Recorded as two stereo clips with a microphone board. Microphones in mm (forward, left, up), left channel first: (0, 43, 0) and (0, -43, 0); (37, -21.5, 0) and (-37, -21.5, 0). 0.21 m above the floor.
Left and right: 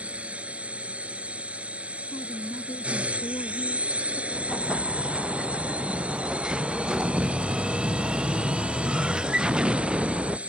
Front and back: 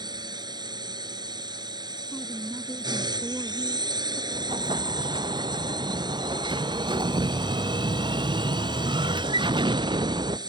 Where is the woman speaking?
75° left.